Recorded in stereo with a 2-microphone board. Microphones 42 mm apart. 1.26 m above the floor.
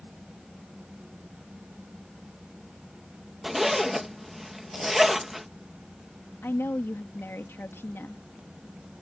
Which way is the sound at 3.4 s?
5° right (ahead or behind).